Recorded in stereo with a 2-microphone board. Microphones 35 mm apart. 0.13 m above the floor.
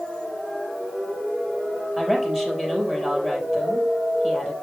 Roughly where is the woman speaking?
Centre.